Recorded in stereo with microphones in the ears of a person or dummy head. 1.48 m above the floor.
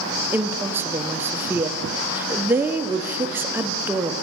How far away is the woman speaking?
About 0.6 m.